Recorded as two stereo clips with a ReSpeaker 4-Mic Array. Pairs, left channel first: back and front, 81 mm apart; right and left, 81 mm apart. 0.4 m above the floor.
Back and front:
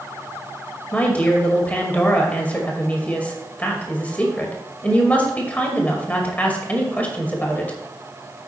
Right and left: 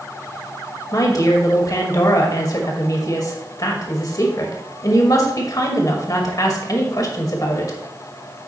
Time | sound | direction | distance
0.9 | a woman speaking | 115° right | 2 m